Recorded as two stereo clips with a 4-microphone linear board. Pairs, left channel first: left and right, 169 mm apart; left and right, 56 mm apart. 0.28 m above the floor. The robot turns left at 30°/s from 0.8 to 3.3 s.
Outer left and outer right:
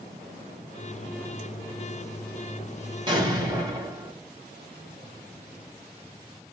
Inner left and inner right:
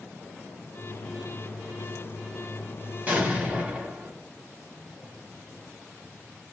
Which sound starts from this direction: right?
An explosion, at 3.1 s.